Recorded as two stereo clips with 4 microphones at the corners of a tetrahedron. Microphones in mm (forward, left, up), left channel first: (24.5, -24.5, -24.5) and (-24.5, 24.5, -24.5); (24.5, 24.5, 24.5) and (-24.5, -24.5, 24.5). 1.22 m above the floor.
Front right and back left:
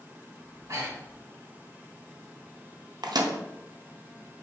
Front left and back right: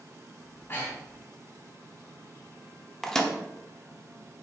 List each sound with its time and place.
0.4 s breathing: 105° left, 1.5 m
3.0 s a microwave: 130° left, 0.6 m